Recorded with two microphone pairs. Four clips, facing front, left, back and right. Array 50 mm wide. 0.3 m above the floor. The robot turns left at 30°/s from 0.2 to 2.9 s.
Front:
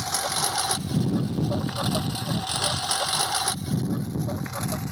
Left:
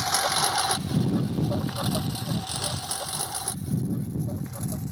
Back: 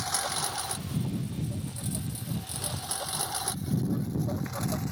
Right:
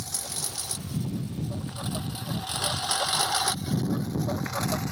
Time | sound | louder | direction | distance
0.0 | a lawn mower | left 13 dB, front 5 dB | 90° left | ?